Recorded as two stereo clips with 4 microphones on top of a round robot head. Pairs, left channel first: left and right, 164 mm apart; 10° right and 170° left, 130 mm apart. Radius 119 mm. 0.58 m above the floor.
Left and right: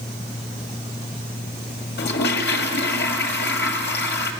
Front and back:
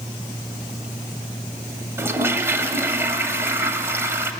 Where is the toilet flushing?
100° left, 1.9 m.